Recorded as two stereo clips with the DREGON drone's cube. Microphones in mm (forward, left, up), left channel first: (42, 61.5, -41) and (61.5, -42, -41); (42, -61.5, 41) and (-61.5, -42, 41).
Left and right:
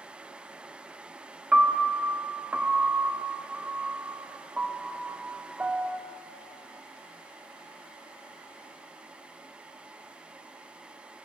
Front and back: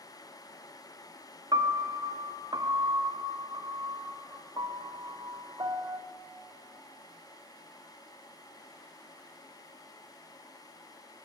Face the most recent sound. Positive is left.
turn(degrees=-155)